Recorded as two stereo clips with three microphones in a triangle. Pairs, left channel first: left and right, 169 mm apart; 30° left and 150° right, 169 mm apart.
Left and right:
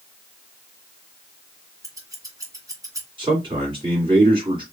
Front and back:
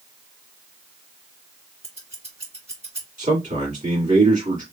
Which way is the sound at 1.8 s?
145° right.